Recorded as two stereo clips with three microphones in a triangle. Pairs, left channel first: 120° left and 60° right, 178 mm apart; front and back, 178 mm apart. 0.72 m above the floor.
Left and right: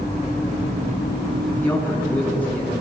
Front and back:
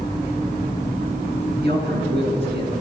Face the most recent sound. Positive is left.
turn(degrees=-160)